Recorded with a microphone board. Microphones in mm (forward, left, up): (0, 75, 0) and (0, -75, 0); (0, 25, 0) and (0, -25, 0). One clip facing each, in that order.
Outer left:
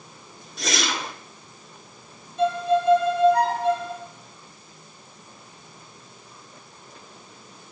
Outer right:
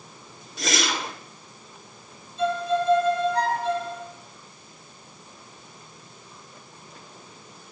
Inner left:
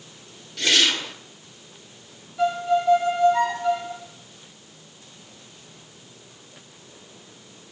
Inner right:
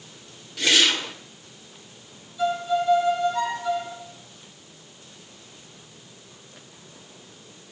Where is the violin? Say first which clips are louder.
Outer left 3 dB, inner left 2 dB; 70° left (ahead or behind), 4 m.